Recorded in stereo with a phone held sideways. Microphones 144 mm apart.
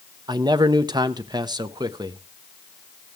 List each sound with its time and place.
0.3 s a man speaking: 30° right (ahead or behind), 0.7 m